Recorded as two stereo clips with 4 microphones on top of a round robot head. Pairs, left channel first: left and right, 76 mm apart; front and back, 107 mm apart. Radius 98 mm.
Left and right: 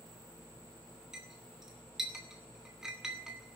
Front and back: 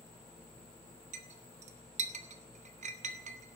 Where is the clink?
175° right, 1.6 m.